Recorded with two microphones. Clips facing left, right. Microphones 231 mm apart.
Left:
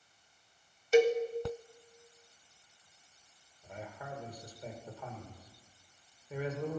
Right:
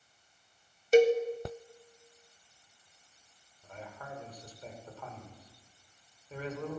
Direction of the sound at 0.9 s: 40° right (ahead or behind).